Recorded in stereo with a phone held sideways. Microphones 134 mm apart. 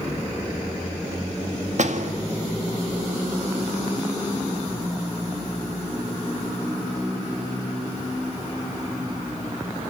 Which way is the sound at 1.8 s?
60° right (ahead or behind).